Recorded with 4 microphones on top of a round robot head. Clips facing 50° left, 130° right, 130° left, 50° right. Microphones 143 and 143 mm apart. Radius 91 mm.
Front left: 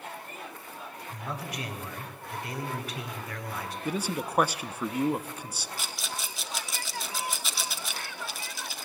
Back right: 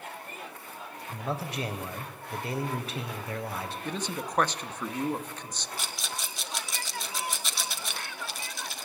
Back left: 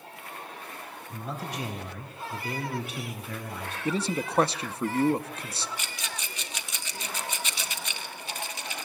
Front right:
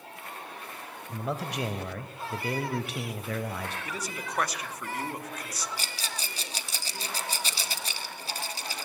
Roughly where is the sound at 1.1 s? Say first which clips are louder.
Back right 4 dB, front right 4 dB; right.